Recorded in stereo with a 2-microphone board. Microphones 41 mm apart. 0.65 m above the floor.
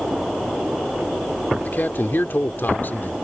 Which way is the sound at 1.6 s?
50° left (ahead or behind).